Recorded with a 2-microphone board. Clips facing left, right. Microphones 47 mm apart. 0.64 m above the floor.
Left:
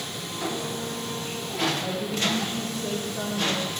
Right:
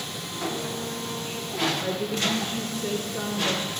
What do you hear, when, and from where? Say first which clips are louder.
1.8 s a woman speaking: even; 50° right (ahead or behind), 1.6 m